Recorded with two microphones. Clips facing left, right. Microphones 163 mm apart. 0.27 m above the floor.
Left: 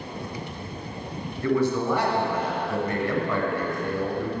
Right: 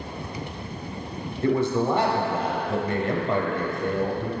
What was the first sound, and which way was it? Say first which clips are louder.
A man speaking: right 1 dB; 25° right (ahead or behind).